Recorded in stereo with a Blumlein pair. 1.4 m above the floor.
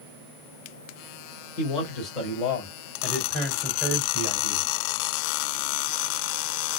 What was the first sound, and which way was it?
A man speaking, 40° left.